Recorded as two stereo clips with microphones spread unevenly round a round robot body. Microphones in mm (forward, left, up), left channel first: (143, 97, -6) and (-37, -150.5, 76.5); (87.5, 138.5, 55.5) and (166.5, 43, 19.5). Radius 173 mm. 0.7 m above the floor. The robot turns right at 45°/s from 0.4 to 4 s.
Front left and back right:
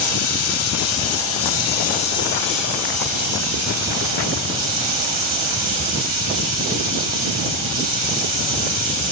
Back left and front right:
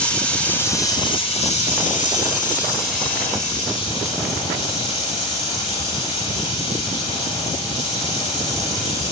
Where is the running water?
40° left, 1.3 m; by 9.1 s 160° right, 1.3 m.